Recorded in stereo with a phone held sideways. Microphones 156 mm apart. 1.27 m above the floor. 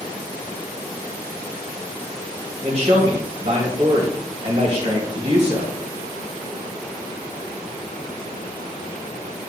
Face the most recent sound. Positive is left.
turn(degrees=-45)  # may be behind; listen again after turning